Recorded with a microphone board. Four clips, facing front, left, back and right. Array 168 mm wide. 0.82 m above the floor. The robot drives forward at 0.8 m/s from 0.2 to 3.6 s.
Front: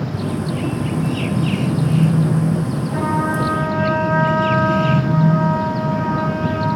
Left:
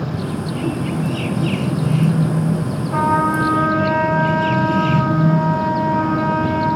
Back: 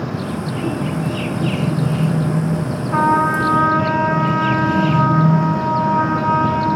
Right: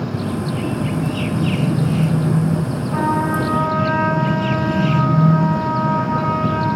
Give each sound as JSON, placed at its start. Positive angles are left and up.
{"t": 2.9, "sound": "a trumpet", "azimuth_deg": 165, "distance_m": 9.0}